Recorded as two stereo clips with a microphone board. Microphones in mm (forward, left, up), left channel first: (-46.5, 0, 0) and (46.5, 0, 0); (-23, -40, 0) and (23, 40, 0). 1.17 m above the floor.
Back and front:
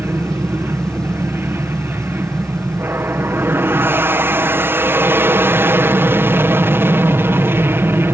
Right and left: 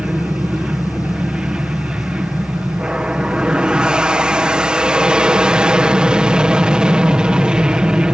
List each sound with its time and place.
0.0 s an aircraft: 10° right